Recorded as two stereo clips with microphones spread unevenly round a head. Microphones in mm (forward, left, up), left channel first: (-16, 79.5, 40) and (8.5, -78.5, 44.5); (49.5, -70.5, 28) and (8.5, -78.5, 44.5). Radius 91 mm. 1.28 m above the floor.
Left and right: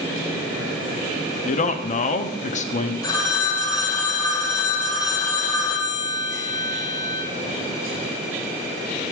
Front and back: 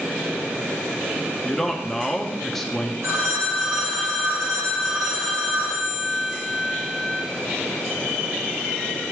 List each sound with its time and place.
1.4 s a man speaking: 75° left, 0.6 m
3.0 s a phone ringing: 170° left, 1.2 m